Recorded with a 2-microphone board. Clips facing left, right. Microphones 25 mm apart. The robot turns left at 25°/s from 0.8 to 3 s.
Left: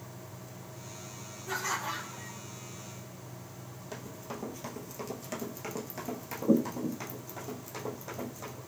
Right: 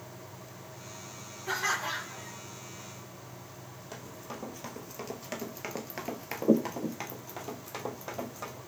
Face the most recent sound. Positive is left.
turn(degrees=-40)  # may be behind; listen again after turning